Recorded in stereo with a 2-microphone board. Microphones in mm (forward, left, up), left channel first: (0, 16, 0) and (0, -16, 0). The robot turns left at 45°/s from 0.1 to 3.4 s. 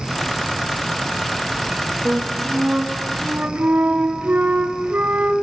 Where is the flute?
30° right, 1.4 m; by 5.3 s 90° right, 1.4 m.